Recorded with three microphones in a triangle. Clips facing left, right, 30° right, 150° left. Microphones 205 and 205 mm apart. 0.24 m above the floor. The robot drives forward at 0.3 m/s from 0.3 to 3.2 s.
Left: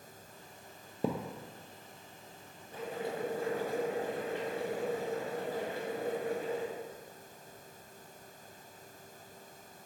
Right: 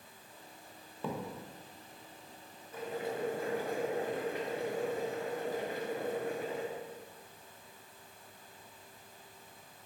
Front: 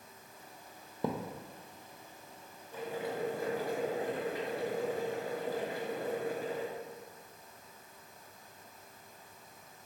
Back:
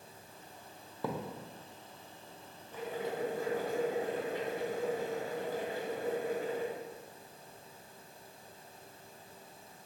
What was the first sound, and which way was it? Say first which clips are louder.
A thud: left 5 dB, front 2 dB; 40° left.